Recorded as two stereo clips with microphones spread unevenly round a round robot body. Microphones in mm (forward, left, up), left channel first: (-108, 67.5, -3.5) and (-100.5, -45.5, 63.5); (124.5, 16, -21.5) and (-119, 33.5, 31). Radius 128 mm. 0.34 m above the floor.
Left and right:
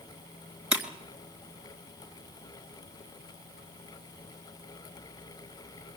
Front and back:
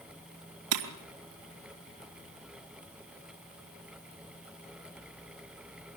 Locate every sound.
0.7 s breaking glass: 170° right, 3.5 m